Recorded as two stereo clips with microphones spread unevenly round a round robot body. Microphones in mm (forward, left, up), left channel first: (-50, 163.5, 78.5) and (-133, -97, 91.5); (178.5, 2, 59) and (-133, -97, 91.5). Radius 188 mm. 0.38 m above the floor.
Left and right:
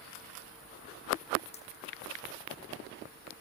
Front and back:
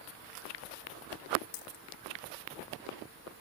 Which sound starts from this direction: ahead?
A dropped coin, at 1.5 s.